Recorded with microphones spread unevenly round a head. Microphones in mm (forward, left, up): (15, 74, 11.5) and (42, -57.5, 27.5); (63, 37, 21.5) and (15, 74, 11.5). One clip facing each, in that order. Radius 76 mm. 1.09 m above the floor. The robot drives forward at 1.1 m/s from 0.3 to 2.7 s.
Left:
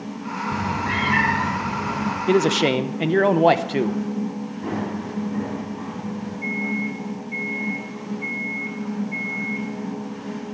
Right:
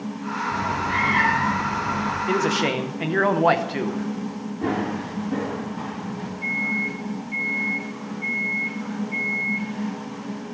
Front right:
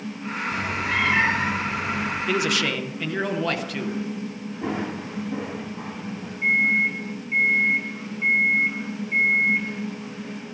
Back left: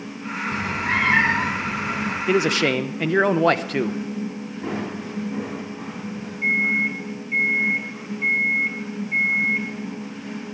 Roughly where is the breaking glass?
No breaking glass in this recording.